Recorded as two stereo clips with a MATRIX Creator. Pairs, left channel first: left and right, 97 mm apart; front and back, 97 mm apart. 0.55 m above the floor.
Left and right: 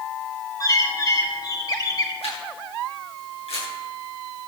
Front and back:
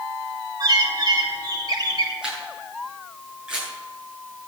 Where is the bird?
140° left, 3 m.